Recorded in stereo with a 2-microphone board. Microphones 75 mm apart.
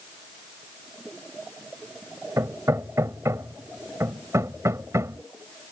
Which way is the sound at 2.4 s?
40° right (ahead or behind).